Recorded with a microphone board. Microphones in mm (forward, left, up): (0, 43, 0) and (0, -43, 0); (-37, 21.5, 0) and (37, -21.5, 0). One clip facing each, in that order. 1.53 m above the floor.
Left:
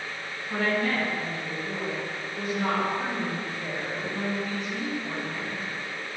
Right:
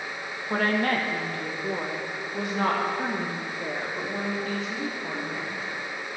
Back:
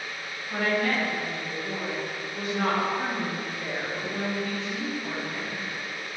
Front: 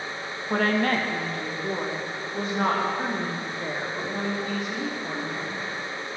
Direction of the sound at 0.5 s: 50° right.